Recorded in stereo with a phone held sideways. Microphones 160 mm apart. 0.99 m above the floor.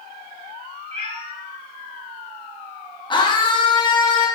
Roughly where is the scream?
Left.